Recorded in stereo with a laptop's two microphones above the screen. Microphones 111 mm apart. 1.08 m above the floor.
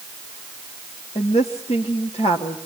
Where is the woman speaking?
70° left (ahead or behind), 1.9 m.